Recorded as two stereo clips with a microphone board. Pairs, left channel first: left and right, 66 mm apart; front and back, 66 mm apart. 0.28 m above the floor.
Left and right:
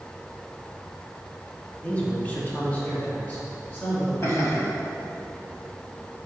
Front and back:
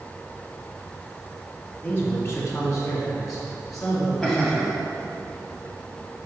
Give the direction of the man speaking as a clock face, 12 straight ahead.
11 o'clock.